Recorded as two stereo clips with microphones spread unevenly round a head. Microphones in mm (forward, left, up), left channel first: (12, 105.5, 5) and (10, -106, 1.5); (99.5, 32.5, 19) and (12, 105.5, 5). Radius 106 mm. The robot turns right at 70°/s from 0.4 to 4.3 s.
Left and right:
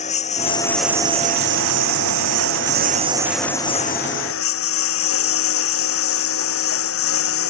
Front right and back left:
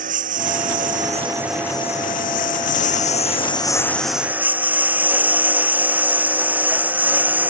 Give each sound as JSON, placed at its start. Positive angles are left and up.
{"t": 0.0, "sound": "a lawn mower", "azimuth_deg": 150}